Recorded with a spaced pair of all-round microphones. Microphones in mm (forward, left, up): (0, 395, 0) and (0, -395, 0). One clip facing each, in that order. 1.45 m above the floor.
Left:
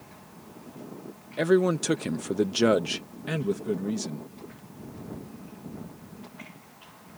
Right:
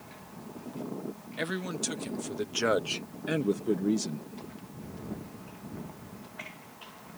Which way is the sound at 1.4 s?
70° left (ahead or behind).